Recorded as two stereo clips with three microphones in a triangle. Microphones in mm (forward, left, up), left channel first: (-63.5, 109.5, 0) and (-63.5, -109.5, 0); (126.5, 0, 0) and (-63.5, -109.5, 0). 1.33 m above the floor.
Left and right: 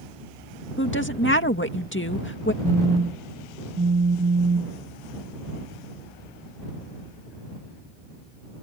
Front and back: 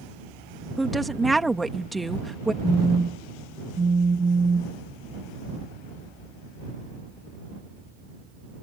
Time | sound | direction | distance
0.8 | a woman speaking | 120° left | ?
2.6 | a phone buzzing | 90° right | ?